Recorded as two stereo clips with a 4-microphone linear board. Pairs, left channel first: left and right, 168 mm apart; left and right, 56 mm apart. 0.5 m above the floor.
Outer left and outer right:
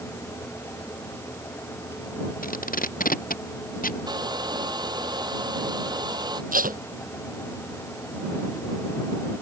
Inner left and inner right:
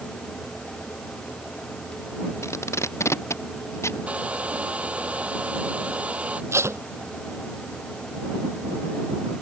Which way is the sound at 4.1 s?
25° right (ahead or behind).